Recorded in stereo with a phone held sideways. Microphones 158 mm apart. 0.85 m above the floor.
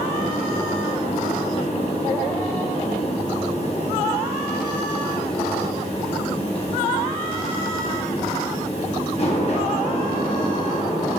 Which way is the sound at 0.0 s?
40° left (ahead or behind).